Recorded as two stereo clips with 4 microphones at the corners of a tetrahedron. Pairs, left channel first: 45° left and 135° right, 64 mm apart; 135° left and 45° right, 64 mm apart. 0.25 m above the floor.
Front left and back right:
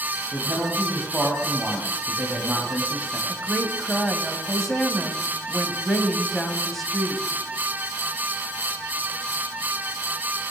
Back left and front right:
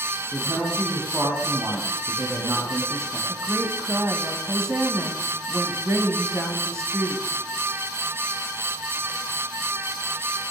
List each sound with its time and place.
0.3 s a woman speaking: 60° right, 2.5 m
3.3 s a woman speaking: 40° right, 2 m